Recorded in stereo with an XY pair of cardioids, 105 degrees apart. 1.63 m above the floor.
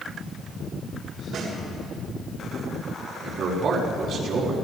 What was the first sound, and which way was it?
A snare drum, 65° right.